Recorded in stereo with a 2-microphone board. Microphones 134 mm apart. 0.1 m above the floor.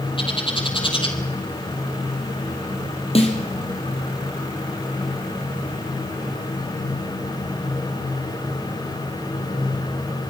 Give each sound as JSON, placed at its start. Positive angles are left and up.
{"t": 0.2, "sound": "a bird", "side_deg": 40, "distance_m": 3.0}
{"t": 3.1, "sound": "a snare drum", "side_deg": 45, "distance_m": 4.0}